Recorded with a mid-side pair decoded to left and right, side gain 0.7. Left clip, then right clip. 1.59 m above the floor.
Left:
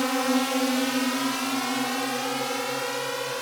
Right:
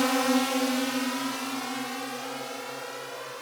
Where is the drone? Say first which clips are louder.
Even; 10° right; by 3.4 s 40° left.